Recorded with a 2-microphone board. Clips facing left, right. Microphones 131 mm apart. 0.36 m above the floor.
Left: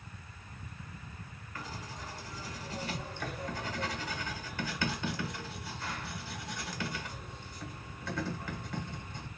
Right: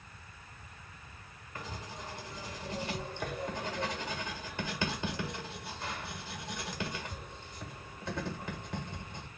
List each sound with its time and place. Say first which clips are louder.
1.6 s writing: even; 25° right (ahead or behind), 1.3 m